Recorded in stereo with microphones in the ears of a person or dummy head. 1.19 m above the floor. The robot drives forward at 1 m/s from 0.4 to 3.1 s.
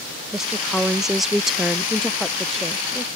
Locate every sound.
0.3 s a woman speaking: centre (ahead or behind)